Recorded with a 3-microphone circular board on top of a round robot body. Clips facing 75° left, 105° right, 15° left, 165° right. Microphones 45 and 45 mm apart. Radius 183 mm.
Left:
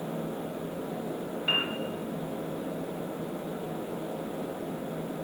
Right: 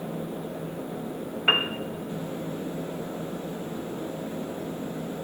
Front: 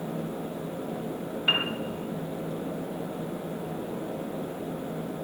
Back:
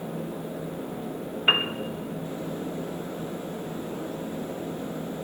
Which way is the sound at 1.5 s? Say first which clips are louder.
Right 6 dB, back 3 dB; 110° right.